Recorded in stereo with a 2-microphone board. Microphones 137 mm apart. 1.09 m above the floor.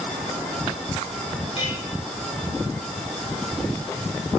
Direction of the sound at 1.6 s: 50° left (ahead or behind).